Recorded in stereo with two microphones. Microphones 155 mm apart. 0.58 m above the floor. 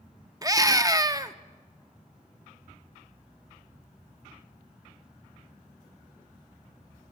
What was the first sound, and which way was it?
A scream, 25° right (ahead or behind).